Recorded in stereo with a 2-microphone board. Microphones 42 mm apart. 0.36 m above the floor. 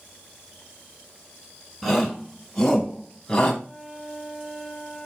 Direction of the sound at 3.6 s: 10° right (ahead or behind).